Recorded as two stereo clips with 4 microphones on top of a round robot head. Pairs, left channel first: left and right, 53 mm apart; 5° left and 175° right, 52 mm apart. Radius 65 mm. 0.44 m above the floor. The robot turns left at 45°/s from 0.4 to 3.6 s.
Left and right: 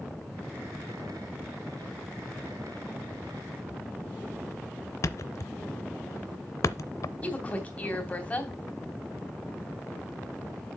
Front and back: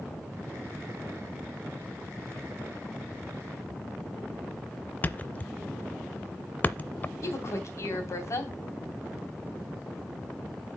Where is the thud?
65° left, 0.5 m.